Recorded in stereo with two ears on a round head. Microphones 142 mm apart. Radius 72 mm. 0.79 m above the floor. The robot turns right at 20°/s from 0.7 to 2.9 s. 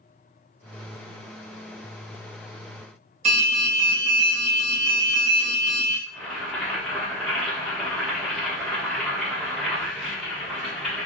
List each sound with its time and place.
3.2 s an alarm: 40° right (ahead or behind), 0.9 m
6.1 s boiling: centre (ahead or behind), 1.0 m